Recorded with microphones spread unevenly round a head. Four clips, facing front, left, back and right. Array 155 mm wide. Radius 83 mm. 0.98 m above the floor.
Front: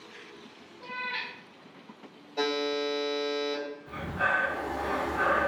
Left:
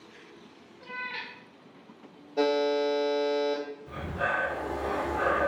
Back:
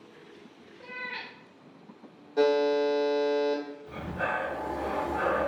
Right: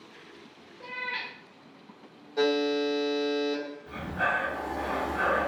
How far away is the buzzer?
About 1.0 m.